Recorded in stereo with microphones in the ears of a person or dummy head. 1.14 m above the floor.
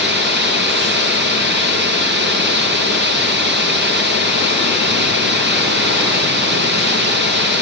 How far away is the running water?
About 9.5 m.